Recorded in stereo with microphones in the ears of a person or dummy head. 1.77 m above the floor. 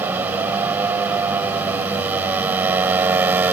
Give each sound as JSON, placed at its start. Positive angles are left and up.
{"t": 0.0, "sound": "a motorcycle", "side_deg": -15}